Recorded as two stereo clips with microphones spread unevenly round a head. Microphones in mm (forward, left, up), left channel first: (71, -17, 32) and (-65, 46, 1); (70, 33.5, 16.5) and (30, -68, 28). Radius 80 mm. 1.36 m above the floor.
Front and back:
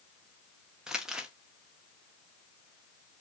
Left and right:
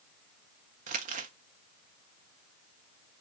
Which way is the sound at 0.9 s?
120° right.